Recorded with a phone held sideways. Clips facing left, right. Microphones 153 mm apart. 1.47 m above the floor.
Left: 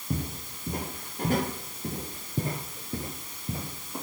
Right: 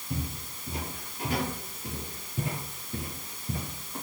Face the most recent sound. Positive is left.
turn(degrees=25)  # may be behind; listen again after turning